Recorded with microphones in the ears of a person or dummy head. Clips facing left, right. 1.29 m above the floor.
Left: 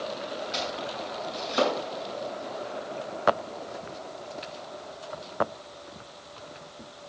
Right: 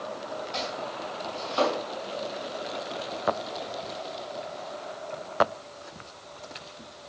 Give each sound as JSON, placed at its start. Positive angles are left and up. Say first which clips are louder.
{"t": 0.5, "sound": "chopping", "louder": "left 1 dB", "side_deg": 25, "distance_m": 6.0}